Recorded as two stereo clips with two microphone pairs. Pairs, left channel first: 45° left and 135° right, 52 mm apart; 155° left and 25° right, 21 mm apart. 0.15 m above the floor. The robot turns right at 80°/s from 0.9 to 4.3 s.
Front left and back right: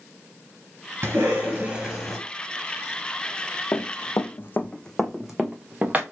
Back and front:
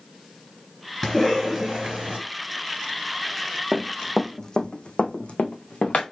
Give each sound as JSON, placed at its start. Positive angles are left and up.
{"t": 1.0, "sound": "a cough", "azimuth_deg": -130, "distance_m": 2.5}
{"t": 3.7, "sound": "running footsteps", "azimuth_deg": 15, "distance_m": 0.8}